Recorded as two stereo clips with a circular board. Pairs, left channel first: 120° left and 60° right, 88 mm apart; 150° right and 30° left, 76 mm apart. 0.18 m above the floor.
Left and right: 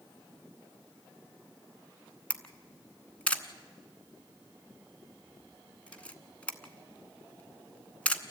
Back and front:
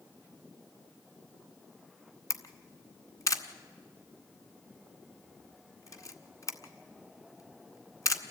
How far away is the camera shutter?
About 1.1 m.